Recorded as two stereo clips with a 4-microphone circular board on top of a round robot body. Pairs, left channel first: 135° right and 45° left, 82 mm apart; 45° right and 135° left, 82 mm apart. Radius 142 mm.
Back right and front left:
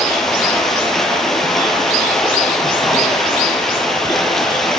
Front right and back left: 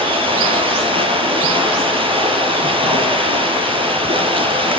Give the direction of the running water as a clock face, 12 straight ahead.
7 o'clock.